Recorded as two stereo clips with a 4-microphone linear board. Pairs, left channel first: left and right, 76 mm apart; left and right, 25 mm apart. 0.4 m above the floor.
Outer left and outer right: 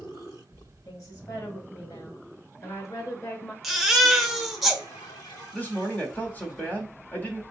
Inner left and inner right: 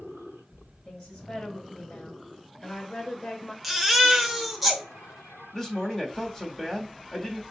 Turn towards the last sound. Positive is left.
turn(degrees=20)  # may be behind; listen again after turning